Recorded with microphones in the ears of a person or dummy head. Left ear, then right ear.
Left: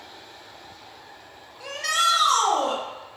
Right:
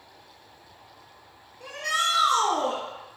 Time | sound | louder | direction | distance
1.6 | a shout | left 3 dB | 40° left (ahead or behind) | 0.9 m